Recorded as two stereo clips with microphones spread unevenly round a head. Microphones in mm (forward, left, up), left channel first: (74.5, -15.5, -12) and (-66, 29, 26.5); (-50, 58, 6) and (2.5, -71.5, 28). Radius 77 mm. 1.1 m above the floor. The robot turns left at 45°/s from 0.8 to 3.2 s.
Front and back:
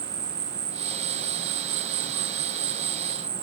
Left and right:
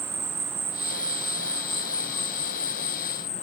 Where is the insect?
145° right; by 3.4 s 110° left.